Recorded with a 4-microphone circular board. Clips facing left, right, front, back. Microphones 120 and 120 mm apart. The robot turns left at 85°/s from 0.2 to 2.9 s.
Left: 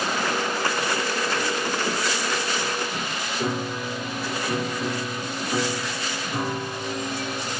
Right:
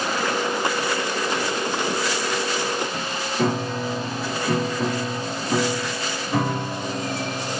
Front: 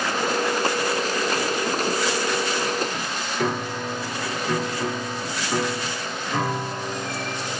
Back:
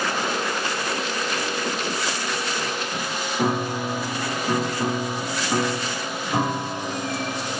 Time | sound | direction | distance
3.4 | a piano | 110° right | 0.8 m